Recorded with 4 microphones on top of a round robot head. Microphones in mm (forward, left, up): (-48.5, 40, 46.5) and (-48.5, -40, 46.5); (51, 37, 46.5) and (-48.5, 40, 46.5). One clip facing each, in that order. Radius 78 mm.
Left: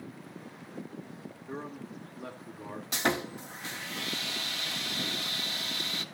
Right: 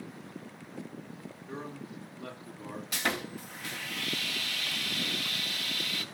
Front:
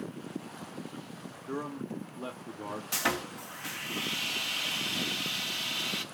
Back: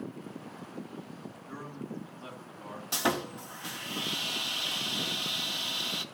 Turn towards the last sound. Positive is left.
turn(degrees=130)